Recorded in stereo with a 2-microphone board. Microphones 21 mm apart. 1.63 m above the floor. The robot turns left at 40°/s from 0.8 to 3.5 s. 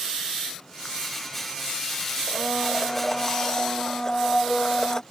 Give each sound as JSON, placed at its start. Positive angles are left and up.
{"t": 2.3, "sound": "a blender", "azimuth_deg": -165}